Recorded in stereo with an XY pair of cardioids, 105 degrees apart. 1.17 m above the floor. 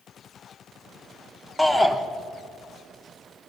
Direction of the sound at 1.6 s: 10° left.